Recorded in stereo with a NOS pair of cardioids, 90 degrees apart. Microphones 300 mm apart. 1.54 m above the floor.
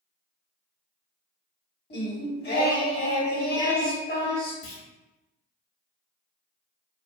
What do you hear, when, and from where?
1.9 s singing: 35° left, 1.2 m
4.6 s a clunk: 40° left, 1.0 m